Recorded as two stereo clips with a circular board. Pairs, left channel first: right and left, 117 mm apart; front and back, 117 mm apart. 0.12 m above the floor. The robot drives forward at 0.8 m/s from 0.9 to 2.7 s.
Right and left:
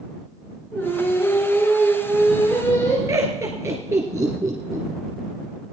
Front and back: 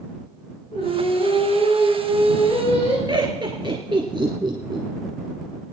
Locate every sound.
0.7 s singing: 25° right, 7 m; by 3.0 s 30° right, 5.5 m
3.1 s laughter: 145° left, 1.9 m